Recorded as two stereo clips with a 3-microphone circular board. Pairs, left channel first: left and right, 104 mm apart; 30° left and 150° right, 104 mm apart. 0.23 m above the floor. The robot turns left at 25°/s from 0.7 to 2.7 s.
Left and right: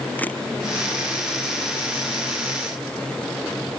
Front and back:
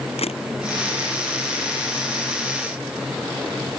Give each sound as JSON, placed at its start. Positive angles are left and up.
{"t": 0.2, "sound": "a camera shutter", "azimuth_deg": 15}